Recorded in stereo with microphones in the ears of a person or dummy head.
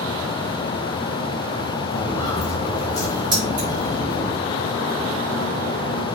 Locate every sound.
1.9 s footsteps: 20° left (ahead or behind), 4 m
3.3 s keys jangling: 20° right (ahead or behind), 5 m